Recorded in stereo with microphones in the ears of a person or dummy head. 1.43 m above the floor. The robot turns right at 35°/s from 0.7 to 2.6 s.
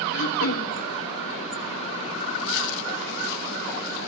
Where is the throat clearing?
60° left (ahead or behind), 2 m.